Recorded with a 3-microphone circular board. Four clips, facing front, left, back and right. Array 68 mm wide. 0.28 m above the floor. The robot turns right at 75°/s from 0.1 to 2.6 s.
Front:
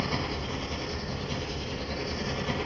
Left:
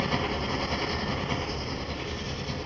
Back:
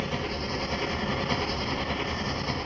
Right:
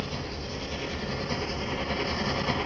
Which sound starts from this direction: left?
An engine running, at 0.0 s.